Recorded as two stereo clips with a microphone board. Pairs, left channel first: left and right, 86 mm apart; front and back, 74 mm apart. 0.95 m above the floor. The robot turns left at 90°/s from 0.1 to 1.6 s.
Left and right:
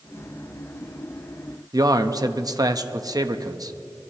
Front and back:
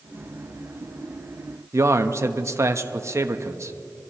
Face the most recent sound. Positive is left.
turn(degrees=-130)